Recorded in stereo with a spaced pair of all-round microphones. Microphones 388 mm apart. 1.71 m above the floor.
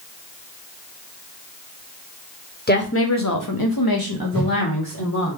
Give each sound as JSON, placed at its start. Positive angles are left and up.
{"t": 2.7, "sound": "a woman speaking", "side_deg": 25, "distance_m": 0.8}
{"t": 4.3, "sound": "a whoosh", "side_deg": 5, "distance_m": 1.3}